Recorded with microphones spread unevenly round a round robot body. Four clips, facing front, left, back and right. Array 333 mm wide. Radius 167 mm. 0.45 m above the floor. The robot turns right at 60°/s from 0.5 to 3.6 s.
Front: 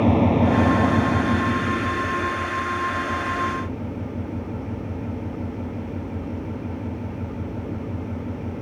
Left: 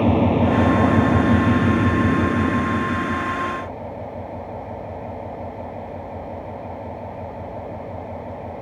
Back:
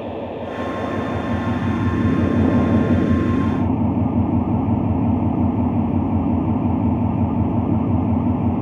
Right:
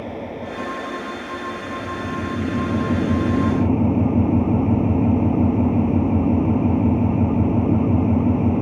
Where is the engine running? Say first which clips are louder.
Left 12 dB, front 9 dB; 50° left; by 8.6 s 125° right.